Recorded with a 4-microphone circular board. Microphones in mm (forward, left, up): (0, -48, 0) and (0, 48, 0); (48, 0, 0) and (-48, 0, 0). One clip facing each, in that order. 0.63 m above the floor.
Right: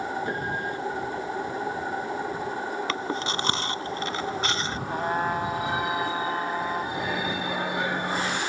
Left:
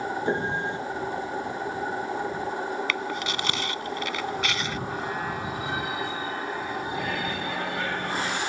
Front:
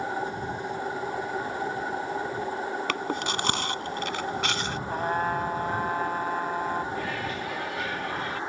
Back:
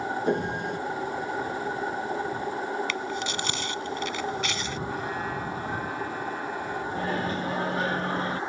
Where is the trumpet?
40° right.